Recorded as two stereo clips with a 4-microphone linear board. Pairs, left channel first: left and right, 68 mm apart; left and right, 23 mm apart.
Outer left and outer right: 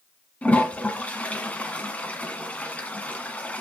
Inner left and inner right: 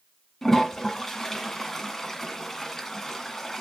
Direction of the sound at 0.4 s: 20° left (ahead or behind).